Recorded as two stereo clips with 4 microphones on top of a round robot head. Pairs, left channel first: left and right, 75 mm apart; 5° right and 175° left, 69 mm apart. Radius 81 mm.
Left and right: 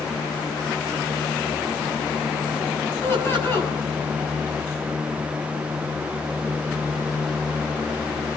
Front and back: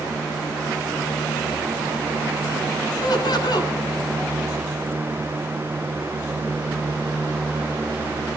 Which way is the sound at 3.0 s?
25° left.